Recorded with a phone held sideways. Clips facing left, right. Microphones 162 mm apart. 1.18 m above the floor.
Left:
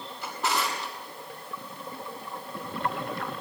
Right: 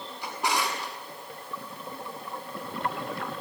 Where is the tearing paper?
I don't hear tearing paper.